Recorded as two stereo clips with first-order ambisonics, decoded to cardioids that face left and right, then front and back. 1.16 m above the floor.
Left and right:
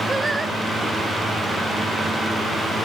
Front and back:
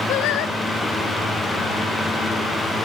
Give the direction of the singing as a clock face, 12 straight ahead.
12 o'clock.